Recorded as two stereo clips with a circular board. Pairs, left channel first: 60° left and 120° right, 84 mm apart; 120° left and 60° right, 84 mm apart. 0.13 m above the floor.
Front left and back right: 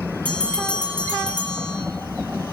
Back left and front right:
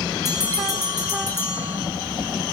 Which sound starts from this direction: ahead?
A bell, at 0.2 s.